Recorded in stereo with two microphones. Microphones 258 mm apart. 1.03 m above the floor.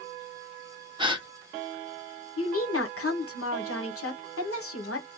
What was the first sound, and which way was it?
A gasp, 20° right (ahead or behind).